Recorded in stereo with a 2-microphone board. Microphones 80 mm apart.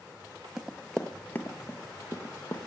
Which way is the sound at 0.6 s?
5° right (ahead or behind).